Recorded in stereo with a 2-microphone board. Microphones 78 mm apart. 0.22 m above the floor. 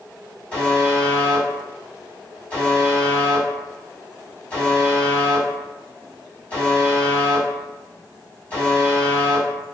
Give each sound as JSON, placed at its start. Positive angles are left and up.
{"t": 0.5, "sound": "a buzzer", "side_deg": 20, "distance_m": 1.7}